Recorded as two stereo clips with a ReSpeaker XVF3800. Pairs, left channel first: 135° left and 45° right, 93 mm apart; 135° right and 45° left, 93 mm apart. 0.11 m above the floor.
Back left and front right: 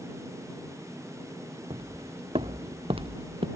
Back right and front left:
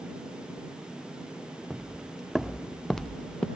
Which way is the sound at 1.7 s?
40° right.